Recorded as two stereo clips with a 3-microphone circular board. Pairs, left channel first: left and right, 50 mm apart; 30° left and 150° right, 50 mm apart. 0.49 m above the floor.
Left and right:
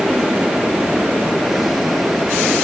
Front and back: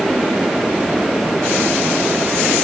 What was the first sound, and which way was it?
Only background noise.